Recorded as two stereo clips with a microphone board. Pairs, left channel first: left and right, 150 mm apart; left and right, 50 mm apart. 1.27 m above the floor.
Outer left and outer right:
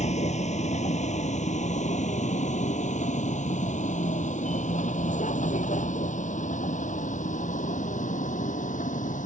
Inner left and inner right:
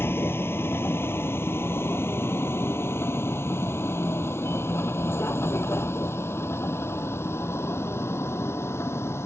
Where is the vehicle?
50° left (ahead or behind); by 9.3 s 60° left (ahead or behind).